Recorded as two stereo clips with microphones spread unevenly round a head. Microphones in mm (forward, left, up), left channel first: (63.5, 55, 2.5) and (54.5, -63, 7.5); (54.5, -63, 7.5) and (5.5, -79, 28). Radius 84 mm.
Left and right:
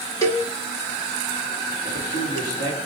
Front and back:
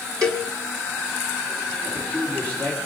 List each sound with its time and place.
0.2 s a cowbell: 160° left, 1.2 m
1.9 s a man speaking: 120° left, 3.5 m